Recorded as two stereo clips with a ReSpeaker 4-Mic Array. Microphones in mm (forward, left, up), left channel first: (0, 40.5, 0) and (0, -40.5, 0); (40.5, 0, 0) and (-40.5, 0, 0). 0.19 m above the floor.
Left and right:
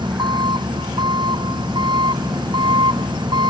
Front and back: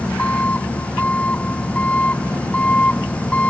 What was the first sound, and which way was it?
An engine running, 70° right.